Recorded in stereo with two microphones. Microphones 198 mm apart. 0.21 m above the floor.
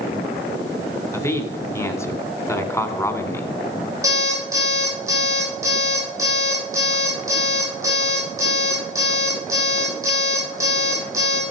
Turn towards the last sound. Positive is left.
turn(degrees=-15)  # may be behind; listen again after turning